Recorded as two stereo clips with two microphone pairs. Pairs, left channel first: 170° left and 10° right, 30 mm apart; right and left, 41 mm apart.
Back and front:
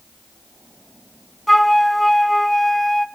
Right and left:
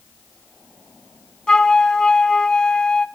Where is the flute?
125° right, 0.5 m.